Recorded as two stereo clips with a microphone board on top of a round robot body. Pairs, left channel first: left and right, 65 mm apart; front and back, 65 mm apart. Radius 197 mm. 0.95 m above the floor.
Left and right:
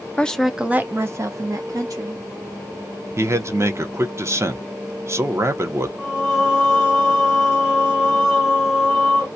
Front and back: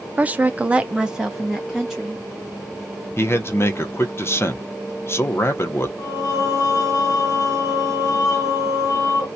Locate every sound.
0.2 s a woman speaking: 145° left, 0.6 m; by 2.2 s 90° right, 1.2 m
3.2 s a man speaking: 50° right, 0.8 m
6.0 s singing: 5° right, 0.6 m